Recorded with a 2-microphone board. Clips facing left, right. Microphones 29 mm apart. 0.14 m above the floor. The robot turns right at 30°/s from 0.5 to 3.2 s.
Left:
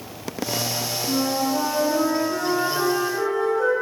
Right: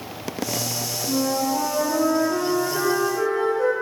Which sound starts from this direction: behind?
A flute, at 1.1 s.